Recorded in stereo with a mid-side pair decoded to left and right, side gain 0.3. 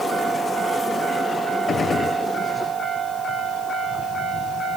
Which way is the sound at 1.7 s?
70° left.